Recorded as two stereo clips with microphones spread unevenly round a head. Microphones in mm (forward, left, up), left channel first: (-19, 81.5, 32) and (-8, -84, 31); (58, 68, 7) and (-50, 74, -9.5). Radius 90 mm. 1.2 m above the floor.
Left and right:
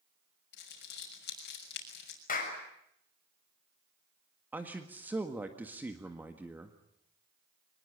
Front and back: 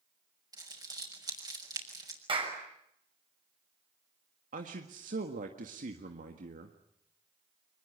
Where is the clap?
135° left, 6.5 m.